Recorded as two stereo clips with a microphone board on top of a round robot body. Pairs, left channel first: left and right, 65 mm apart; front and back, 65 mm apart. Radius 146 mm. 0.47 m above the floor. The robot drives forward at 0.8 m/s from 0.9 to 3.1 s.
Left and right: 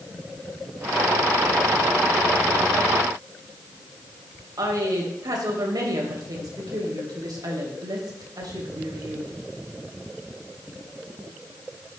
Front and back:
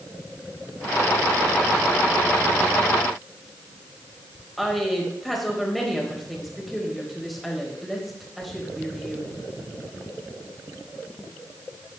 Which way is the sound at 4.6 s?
90° right.